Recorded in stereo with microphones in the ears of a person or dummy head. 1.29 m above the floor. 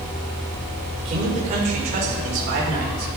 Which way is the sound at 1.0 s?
35° right (ahead or behind).